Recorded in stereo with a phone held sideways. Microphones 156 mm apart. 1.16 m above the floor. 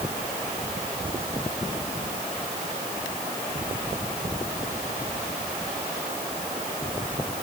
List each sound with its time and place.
Only background noise.